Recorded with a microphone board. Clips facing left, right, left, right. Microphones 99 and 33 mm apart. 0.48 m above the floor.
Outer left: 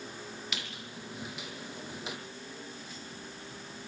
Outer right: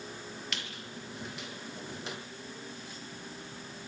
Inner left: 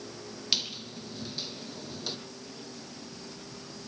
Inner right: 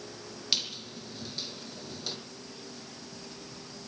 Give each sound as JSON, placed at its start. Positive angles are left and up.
{"t": 0.5, "sound": "a squeak", "side_deg": 5, "distance_m": 3.0}